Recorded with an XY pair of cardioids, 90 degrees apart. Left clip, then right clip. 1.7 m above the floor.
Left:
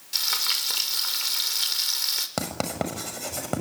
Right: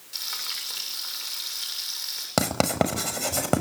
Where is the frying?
60° left, 6.5 m.